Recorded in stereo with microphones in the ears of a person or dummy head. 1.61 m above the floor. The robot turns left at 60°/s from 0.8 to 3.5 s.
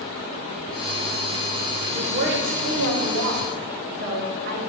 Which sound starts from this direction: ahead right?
A woman speaking, at 1.9 s.